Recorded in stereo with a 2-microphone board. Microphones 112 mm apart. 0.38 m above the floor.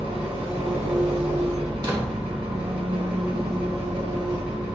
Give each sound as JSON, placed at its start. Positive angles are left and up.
{"t": 0.0, "sound": "an engine running", "side_deg": -55, "distance_m": 1.5}
{"t": 1.8, "sound": "a door slam", "side_deg": -40, "distance_m": 0.8}